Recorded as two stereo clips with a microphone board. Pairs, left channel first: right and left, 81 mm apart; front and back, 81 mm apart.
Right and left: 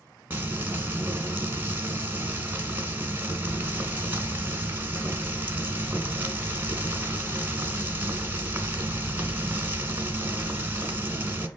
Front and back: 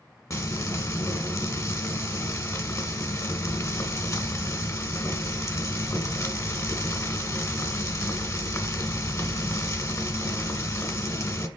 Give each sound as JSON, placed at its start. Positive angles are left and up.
{"t": 0.3, "sound": "frying", "azimuth_deg": 35, "distance_m": 1.3}